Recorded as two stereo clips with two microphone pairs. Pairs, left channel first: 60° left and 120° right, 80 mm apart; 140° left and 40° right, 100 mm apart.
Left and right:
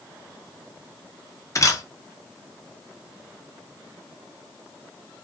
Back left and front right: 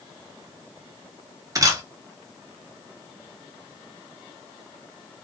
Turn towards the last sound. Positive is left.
turn(degrees=15)